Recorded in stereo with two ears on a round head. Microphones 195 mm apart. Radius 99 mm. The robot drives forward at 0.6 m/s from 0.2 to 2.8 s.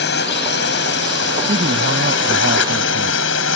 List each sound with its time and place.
0.0 s a drone: 50° left (ahead or behind); by 3.6 s 65° left (ahead or behind)
1.5 s a man speaking: 30° right (ahead or behind); by 3.2 s 40° right (ahead or behind)